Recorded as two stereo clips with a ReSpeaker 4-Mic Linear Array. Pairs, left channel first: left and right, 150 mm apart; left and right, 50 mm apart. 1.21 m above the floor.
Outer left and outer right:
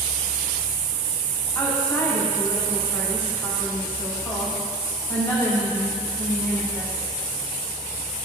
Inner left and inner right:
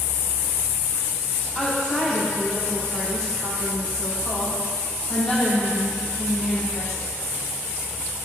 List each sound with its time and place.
1.6 s a woman speaking: 20° left (ahead or behind), 3 m